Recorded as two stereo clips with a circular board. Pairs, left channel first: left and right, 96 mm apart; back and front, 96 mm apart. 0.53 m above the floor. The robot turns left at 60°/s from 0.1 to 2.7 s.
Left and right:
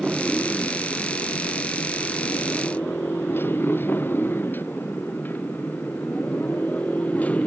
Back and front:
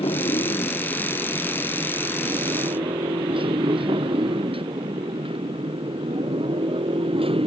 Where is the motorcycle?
175° right; by 7.5 s 15° left.